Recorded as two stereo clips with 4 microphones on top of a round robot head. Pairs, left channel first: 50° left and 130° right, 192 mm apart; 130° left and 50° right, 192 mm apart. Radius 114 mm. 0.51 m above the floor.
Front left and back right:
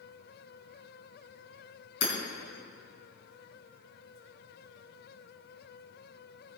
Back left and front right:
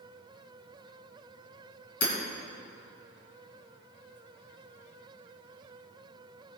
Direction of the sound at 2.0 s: 85° left.